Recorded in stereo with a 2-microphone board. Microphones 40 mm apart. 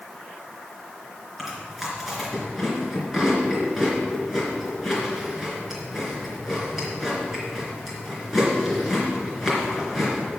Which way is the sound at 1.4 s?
10° right (ahead or behind).